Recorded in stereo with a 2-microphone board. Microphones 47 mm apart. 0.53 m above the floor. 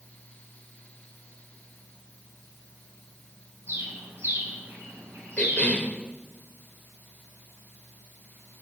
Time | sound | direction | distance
3.7 | a bird | 65° right (ahead or behind) | 3.5 m
5.4 | a cough | 25° left (ahead or behind) | 1.9 m